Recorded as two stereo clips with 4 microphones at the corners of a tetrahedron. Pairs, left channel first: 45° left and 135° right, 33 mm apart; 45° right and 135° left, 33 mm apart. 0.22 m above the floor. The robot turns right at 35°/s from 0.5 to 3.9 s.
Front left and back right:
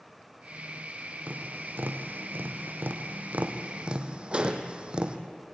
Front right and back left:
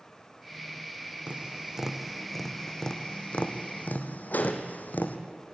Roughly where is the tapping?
Behind.